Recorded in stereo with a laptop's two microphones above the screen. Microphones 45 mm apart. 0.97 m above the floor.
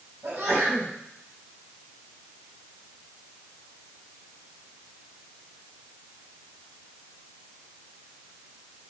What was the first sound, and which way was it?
A sneeze, 75° right (ahead or behind).